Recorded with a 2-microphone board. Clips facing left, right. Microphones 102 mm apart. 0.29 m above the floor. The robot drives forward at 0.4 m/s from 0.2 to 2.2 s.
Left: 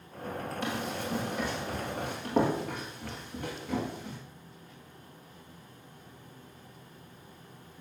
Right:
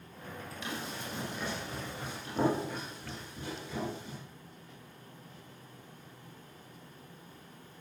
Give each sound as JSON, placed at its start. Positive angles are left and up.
{"t": 0.6, "sound": "running footsteps", "side_deg": 50, "distance_m": 7.0}